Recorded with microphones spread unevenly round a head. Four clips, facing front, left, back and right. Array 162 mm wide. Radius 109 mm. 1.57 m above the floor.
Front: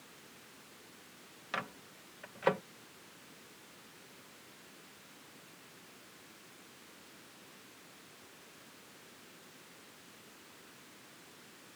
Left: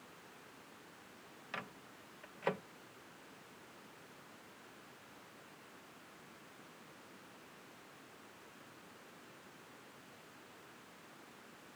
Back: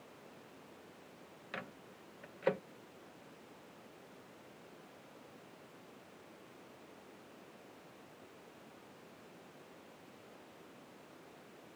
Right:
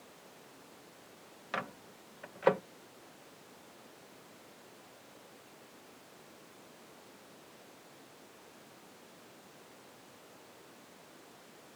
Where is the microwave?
105° right.